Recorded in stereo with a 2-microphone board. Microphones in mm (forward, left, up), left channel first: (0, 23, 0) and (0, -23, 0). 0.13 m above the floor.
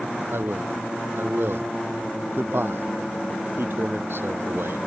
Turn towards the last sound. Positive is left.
turn(degrees=-65)  # may be behind; listen again after turning